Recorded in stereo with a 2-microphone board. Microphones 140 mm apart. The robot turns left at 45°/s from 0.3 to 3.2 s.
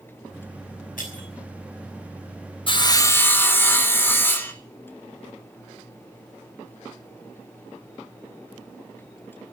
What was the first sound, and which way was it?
Breaking glass, 75° left (ahead or behind).